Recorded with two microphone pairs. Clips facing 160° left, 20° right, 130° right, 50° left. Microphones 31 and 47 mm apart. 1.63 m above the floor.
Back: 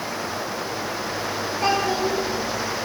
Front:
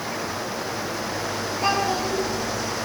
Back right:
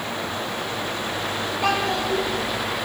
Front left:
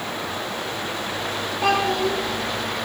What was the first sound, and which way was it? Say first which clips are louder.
A child speaking: back 1 dB, front left 3 dB; 110° left.